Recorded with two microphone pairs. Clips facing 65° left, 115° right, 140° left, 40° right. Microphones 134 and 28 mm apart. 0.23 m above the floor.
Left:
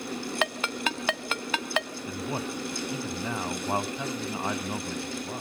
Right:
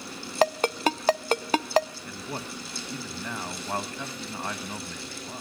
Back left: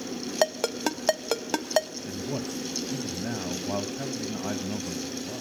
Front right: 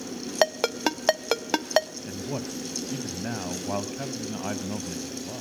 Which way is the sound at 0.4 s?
90° right.